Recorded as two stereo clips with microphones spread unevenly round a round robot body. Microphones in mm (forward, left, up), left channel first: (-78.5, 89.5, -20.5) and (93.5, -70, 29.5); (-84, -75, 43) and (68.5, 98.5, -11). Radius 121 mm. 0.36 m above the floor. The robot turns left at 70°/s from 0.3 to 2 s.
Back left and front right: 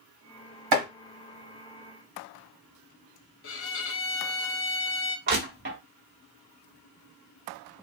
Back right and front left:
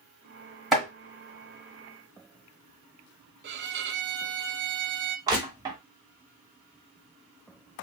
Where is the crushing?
Straight ahead, 1.4 m.